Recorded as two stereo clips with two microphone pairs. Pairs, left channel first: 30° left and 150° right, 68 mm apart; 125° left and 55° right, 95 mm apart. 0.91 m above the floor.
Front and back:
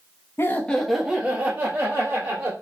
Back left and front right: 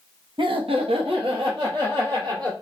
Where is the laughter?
20° right, 0.8 m; by 2.5 s 95° right, 2.5 m.